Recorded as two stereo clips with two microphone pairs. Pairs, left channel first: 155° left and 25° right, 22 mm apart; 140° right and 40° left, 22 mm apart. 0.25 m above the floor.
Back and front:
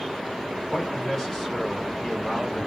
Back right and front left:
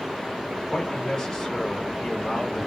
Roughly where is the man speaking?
Behind.